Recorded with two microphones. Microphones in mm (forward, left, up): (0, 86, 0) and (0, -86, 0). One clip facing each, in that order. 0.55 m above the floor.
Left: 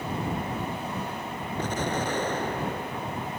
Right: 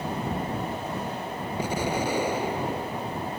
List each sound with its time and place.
1.6 s an explosion: 10° right (ahead or behind)